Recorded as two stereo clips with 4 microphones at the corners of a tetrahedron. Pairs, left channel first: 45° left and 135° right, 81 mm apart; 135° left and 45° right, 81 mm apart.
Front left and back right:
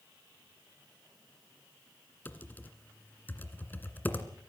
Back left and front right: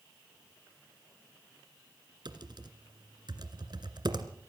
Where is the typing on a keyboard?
20° right, 1.9 m.